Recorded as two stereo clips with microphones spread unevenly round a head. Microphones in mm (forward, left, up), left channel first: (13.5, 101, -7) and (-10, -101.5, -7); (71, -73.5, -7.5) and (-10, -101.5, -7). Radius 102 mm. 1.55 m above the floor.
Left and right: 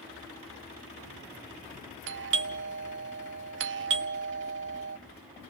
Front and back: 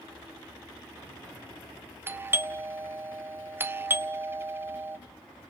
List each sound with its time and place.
2.1 s a doorbell: 100° right, 0.9 m